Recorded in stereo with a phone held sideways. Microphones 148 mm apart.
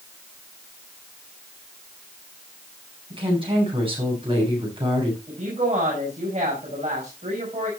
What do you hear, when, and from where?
3.1 s a woman speaking: 35° right (ahead or behind), 8.5 m
5.3 s a woman speaking: 50° right (ahead or behind), 5.5 m